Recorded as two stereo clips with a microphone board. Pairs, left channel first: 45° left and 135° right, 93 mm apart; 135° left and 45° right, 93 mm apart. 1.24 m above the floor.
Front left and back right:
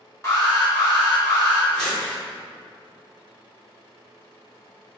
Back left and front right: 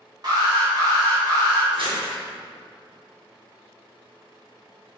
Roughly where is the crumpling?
Ahead right.